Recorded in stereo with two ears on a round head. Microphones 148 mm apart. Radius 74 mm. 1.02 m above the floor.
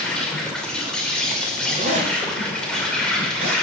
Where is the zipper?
45° right (ahead or behind), 3 m.